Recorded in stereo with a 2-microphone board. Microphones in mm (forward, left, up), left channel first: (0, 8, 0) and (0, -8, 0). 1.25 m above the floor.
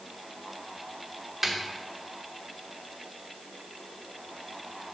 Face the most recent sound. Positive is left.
turn(degrees=-20)  # may be behind; listen again after turning